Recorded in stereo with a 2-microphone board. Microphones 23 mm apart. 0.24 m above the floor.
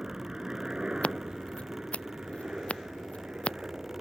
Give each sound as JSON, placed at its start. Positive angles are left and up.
{"t": 0.0, "sound": "a helicopter", "side_deg": -30}
{"t": 1.0, "sound": "scissors", "side_deg": 60}